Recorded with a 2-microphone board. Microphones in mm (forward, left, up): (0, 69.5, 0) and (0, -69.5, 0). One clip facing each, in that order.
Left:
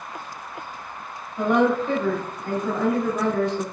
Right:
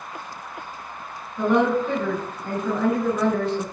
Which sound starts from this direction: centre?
A woman speaking, at 1.4 s.